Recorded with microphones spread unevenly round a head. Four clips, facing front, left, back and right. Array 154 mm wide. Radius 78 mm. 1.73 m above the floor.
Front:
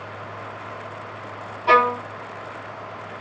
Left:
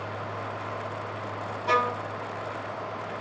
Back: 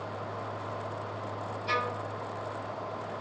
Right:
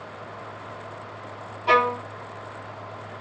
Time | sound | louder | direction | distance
1.7 | a violin | right 5 dB, front 16 dB | 20° right | 0.7 m